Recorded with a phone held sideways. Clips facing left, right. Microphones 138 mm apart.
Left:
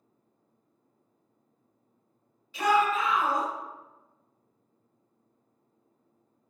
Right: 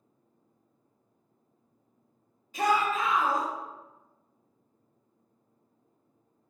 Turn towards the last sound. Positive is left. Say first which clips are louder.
# left 2 dB
turn(degrees=-45)  # may be behind; listen again after turning